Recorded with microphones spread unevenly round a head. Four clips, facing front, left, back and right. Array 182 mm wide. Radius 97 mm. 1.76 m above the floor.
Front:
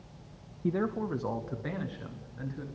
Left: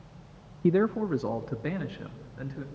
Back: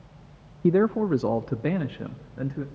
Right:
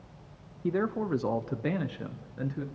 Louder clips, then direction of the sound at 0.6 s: Left 5 dB, back 10 dB; 160° left.